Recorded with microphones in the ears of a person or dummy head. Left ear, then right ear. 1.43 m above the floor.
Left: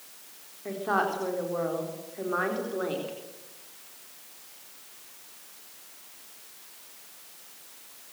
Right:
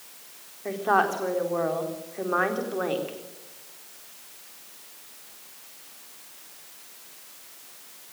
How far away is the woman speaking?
About 4 m.